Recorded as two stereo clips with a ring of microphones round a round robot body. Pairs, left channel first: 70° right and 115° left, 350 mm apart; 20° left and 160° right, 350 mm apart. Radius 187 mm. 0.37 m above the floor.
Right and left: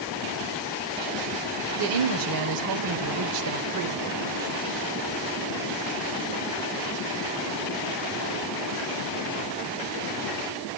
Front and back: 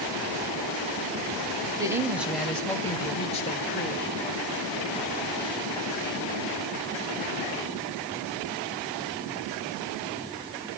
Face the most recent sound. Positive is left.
turn(degrees=80)